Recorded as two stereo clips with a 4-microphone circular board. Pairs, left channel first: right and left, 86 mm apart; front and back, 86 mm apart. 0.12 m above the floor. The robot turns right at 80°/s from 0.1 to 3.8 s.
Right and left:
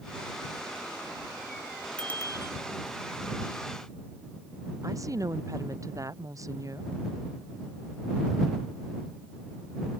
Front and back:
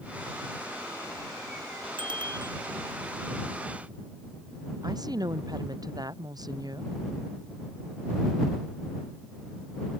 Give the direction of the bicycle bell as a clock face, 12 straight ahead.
6 o'clock.